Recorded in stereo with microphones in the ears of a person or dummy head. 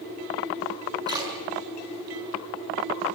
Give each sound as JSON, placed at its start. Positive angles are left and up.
{"t": 1.1, "sound": "a splash", "side_deg": -20, "distance_m": 8.0}